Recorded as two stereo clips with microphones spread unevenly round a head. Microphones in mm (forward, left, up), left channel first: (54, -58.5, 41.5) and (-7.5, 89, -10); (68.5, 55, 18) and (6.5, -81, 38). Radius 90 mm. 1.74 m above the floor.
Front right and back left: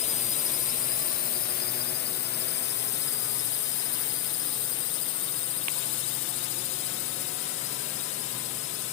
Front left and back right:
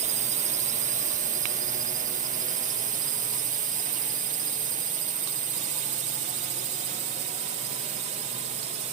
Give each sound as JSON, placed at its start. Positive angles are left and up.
{"t": 0.0, "sound": "a drone", "azimuth_deg": -120}